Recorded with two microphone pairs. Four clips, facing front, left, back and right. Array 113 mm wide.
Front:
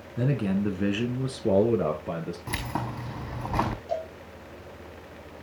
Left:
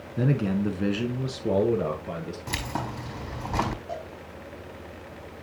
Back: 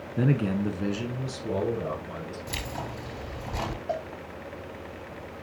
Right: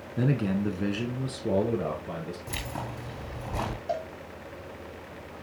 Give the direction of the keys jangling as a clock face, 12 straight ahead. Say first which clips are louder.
Left 4 dB, front 5 dB; 11 o'clock.